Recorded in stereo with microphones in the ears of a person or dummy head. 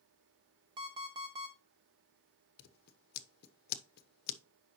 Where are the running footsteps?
No running footsteps in this recording.